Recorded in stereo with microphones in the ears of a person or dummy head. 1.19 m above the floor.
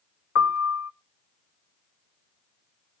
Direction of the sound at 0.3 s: 75° left (ahead or behind).